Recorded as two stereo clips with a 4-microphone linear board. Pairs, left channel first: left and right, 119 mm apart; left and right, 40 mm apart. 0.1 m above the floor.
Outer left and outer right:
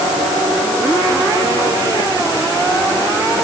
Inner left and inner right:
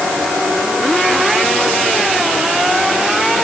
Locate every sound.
Only background noise.